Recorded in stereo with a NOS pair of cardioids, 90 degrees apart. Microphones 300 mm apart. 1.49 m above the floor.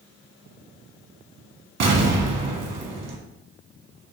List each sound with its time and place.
1.8 s an explosion: 55° right, 1.2 m